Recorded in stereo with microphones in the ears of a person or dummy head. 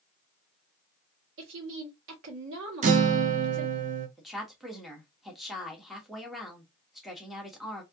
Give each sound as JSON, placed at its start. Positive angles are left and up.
{"t": 1.4, "sound": "a woman speaking", "side_deg": -65, "distance_m": 1.4}
{"t": 2.8, "sound": "a guitar", "side_deg": -40, "distance_m": 0.6}
{"t": 4.2, "sound": "a woman speaking", "side_deg": 0, "distance_m": 1.2}